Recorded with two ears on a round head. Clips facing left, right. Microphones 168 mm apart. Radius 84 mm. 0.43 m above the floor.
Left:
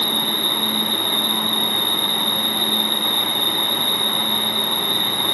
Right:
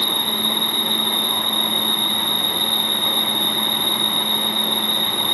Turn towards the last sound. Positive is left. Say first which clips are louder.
# left 1 dB
turn(degrees=-70)  # may be behind; listen again after turning